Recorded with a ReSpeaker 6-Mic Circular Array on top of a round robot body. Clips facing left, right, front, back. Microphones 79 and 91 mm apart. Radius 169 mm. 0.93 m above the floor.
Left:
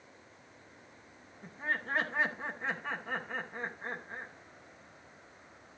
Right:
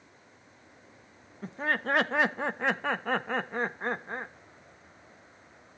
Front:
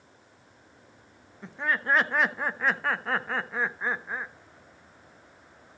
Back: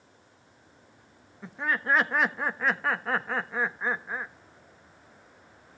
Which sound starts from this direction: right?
Laughter, at 1.4 s.